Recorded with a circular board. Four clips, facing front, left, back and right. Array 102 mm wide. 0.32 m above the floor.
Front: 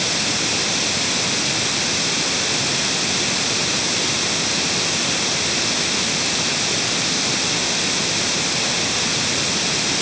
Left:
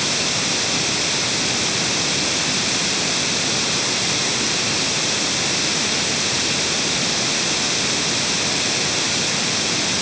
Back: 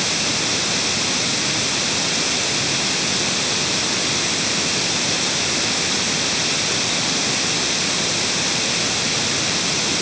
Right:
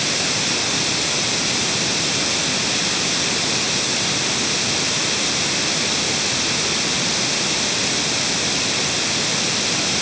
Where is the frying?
No frying in this recording.